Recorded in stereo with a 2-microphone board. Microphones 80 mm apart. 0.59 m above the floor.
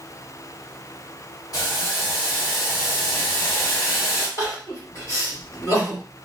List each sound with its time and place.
1.5 s boiling: 55° left (ahead or behind), 1.8 m
4.4 s crying: 45° left (ahead or behind), 1.9 m